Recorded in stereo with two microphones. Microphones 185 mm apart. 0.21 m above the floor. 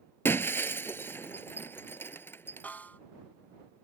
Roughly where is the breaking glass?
Centre.